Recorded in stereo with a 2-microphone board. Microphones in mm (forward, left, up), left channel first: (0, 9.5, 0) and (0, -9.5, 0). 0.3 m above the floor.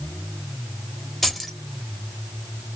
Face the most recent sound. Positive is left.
turn(degrees=5)  # may be behind; listen again after turning